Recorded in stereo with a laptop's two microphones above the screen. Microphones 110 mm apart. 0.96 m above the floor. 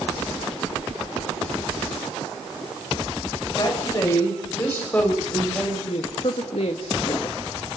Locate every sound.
3.6 s a woman speaking: 35° left (ahead or behind), 5.5 m; by 5.8 s 5° left (ahead or behind), 6 m
5.9 s a woman speaking: 65° left (ahead or behind), 1.6 m